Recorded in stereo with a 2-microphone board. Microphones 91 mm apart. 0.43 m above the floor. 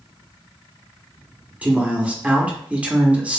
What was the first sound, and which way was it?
A man speaking, 15° right (ahead or behind).